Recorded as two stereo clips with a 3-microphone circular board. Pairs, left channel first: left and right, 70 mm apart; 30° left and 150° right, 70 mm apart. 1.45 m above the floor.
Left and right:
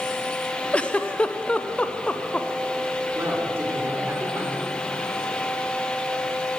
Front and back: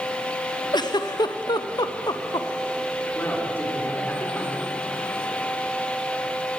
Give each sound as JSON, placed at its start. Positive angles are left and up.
{"t": 0.7, "sound": "a giggle", "azimuth_deg": 15, "distance_m": 0.6}
{"t": 3.1, "sound": "a man speaking", "azimuth_deg": -35, "distance_m": 3.5}